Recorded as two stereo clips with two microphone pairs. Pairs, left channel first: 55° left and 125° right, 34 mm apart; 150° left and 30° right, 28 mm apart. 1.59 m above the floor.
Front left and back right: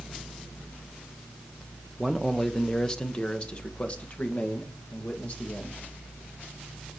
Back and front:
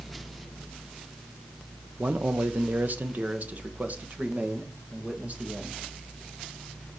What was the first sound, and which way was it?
A man speaking, 35° right.